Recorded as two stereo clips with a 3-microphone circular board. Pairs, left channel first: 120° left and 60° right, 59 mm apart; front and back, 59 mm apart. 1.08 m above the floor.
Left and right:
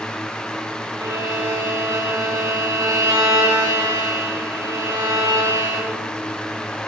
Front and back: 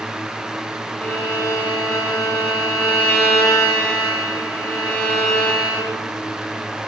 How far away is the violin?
About 5.5 m.